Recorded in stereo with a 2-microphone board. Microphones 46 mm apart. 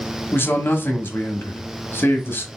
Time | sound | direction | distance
0.3 | a man speaking | 55° left (ahead or behind) | 1.2 m